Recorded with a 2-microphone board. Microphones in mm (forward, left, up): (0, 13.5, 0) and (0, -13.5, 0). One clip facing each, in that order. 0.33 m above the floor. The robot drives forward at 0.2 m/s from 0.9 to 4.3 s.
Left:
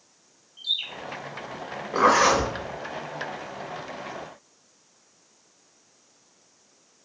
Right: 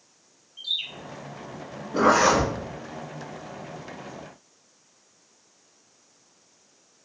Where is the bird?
Centre (ahead or behind), 1.0 m.